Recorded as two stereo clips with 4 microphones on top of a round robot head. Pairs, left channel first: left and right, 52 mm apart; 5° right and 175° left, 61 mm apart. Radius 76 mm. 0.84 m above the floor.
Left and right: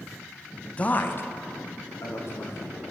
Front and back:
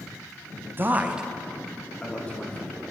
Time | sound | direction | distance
0.8 | a man speaking | 145° left | 0.5 m